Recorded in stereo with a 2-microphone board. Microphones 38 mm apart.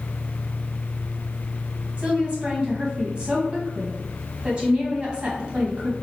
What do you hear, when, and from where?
2.0 s a woman speaking: 25° right (ahead or behind), 1.7 m